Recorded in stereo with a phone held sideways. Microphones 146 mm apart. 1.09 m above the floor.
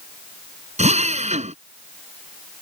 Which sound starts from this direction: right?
A drill, at 0.8 s.